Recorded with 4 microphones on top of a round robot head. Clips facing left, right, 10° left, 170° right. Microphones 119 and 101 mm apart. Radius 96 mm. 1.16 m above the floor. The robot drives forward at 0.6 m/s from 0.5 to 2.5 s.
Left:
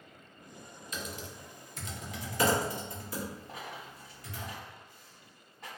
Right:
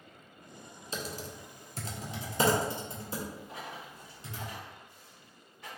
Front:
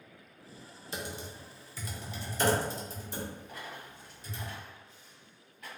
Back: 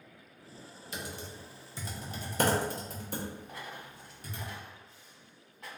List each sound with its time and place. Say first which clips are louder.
0.9 s typing on a keyboard: right 3 dB, front 2 dB; 40° right, 0.6 m; by 4.5 s 155° right, 0.8 m
3.5 s a dropped coin: even, even; 140° left, 1.2 m